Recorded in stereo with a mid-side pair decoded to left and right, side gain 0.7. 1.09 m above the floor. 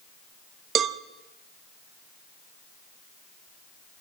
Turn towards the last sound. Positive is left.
turn(degrees=-40)